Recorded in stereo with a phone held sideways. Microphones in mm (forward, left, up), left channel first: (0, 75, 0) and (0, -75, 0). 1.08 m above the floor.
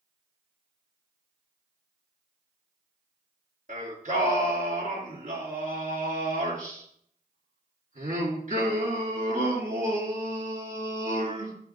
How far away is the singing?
About 2.5 m.